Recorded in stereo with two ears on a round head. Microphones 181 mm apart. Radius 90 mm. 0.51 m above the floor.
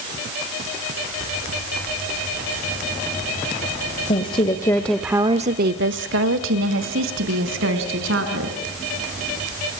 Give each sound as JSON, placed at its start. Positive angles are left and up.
{"t": 4.1, "sound": "a woman speaking", "side_deg": 30, "distance_m": 2.0}